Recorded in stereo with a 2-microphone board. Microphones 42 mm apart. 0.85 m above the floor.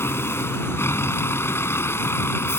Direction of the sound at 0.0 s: 85° left.